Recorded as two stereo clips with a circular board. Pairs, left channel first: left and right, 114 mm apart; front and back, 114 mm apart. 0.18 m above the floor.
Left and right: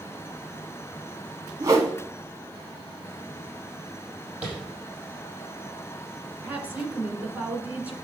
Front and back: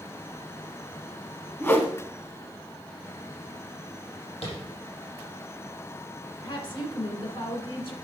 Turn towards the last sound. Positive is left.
turn(degrees=-20)